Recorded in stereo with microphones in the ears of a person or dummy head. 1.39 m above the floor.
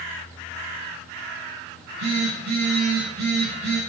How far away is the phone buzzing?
About 6 m.